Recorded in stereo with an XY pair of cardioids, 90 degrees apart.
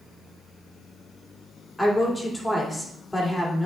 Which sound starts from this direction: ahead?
A woman speaking, at 1.8 s.